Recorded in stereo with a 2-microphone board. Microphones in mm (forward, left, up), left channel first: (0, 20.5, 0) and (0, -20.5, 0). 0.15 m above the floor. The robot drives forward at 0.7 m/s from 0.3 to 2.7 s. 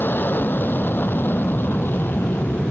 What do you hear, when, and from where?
0.0 s an aircraft: 55° left (ahead or behind)